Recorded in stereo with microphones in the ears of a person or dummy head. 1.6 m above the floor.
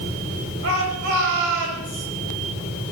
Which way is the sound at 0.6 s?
75° right (ahead or behind).